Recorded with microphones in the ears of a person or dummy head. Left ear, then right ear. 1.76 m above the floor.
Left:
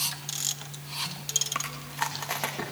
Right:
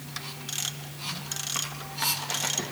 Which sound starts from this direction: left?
Chewing, at 1.6 s.